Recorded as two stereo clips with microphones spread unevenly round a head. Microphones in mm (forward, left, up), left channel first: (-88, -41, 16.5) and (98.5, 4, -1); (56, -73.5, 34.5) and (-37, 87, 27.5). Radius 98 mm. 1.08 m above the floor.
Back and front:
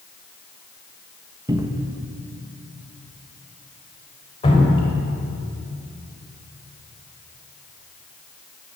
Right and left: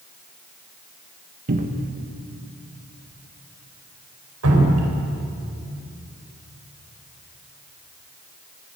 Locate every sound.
1.5 s a cupboard door: 85° left, 1.5 m
4.4 s dripping: 130° left, 4.5 m